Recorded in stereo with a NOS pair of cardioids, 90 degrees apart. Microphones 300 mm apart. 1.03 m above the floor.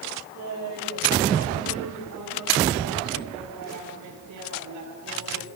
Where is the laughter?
70° right, 6.5 m; by 5.5 s 80° right, 10.5 m.